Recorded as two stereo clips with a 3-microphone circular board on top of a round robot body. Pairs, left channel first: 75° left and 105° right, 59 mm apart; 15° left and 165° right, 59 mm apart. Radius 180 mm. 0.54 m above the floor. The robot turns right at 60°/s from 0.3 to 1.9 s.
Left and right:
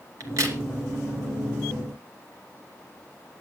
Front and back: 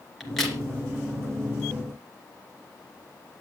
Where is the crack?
75° right, 2.5 m; by 0.6 s 60° right, 2.5 m.